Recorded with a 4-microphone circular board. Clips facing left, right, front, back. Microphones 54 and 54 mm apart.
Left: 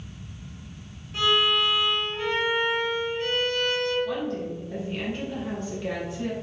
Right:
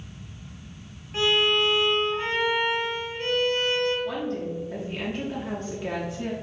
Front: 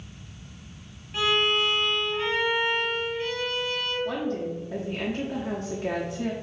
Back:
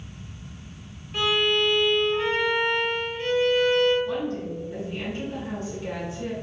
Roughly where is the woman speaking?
Ahead.